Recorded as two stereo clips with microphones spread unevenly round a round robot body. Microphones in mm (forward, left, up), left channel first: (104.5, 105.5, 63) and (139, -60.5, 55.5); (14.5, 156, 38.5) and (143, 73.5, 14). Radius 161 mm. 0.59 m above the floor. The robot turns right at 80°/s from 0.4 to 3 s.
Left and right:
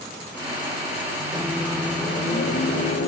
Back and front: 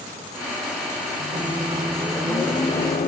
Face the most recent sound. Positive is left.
turn(degrees=125)